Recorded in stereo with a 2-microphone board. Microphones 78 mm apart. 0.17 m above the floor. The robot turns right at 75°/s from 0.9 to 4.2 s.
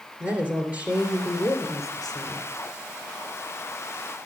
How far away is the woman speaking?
About 3.5 m.